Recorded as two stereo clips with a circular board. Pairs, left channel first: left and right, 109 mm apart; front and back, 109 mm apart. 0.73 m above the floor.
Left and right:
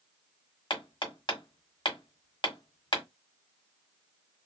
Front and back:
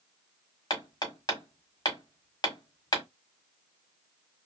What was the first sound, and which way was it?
Hammering, 50° left.